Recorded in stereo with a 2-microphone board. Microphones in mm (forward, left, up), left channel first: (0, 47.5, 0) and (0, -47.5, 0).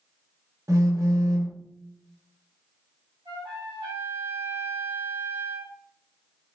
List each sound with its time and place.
0.7 s a phone buzzing: 30° right (ahead or behind), 0.8 m
3.2 s a trumpet: 45° right (ahead or behind), 1.4 m